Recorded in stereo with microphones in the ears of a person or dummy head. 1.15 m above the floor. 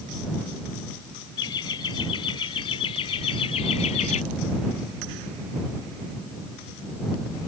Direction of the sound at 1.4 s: 20° left (ahead or behind).